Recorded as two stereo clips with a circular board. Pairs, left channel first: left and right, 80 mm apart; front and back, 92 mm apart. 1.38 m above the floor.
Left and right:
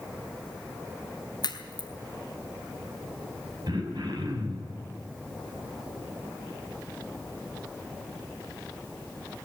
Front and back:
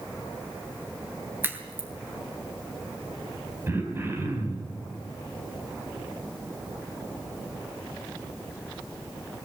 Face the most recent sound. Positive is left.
turn(degrees=-115)